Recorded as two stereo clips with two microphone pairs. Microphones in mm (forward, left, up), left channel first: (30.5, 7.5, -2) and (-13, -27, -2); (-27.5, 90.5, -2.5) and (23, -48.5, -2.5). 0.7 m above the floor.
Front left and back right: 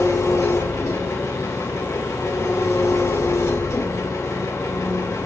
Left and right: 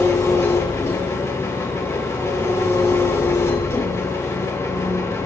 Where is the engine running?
40° left, 1.9 m.